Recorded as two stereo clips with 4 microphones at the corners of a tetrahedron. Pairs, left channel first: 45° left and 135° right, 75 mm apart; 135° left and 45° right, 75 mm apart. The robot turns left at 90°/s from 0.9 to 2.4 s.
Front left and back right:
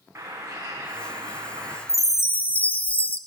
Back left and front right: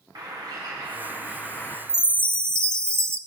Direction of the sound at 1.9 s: 35° left.